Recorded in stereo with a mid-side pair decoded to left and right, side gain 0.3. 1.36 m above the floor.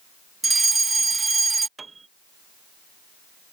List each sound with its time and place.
0.4 s a fire alarm: 40° right
1.8 s a piano: 45° right